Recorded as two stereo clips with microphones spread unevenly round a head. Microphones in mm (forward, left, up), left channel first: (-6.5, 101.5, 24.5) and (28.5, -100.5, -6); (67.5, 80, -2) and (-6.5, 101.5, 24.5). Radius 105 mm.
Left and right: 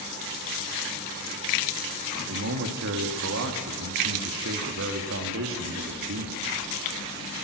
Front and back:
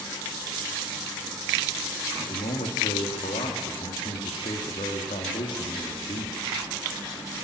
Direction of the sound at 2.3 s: 55° right.